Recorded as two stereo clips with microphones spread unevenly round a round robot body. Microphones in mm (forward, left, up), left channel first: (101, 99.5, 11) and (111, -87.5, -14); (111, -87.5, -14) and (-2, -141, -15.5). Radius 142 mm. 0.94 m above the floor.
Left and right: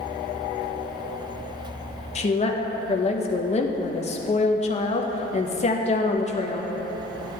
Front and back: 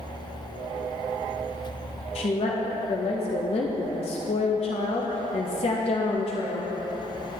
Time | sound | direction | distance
2.1 | a woman speaking | 45° left | 0.7 m